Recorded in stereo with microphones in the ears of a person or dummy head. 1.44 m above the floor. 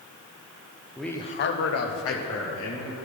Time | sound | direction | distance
1.0 | a man speaking | 5° right (ahead or behind) | 0.8 m